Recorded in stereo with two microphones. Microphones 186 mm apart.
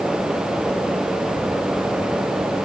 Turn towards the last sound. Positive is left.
No sound to turn to.